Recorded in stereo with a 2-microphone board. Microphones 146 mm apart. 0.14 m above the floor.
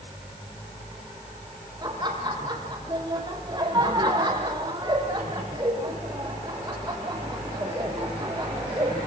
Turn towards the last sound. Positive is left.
turn(degrees=-30)  # may be behind; listen again after turning